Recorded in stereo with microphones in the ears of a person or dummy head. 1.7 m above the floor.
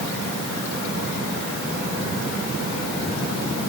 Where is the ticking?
I don't hear ticking.